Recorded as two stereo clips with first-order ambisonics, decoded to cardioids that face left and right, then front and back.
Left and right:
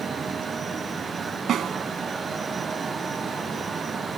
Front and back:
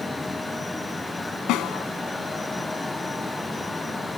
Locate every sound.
1.5 s a snare drum: 35° right